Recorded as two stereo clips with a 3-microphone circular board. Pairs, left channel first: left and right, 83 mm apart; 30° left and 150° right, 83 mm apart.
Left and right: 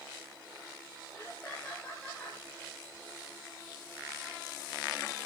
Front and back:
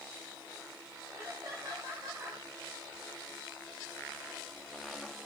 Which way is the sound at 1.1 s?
165° left.